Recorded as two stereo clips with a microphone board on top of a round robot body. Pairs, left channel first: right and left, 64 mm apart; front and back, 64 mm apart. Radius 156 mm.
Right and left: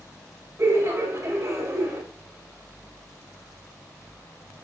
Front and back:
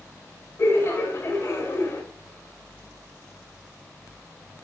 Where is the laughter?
45° left, 3.5 m.